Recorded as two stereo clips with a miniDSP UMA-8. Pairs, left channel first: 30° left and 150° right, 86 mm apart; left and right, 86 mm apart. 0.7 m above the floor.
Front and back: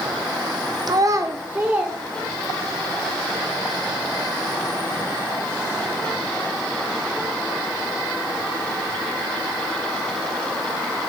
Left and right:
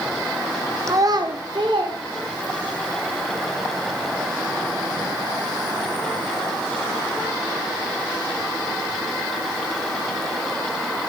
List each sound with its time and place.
0.9 s a child speaking: 130° right, 0.8 m; by 2.8 s 70° right, 2.5 m